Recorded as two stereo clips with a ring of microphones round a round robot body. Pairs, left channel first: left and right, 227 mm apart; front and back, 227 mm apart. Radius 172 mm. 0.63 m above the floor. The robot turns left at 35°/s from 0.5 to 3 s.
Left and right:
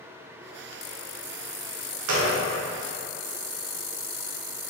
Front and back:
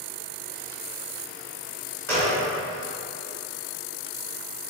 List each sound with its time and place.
2.1 s a gunshot: 80° right, 0.9 m; by 2.4 s 90° right, 0.9 m